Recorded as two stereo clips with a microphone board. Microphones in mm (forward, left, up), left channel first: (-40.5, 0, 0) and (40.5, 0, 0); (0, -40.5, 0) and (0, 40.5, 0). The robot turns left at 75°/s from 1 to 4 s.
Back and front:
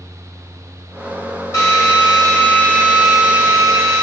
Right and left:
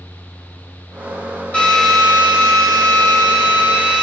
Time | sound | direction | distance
1.5 | a drill | 155° right | 1.3 m